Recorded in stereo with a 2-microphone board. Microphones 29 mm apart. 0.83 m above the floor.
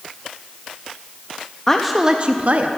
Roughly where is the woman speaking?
Centre.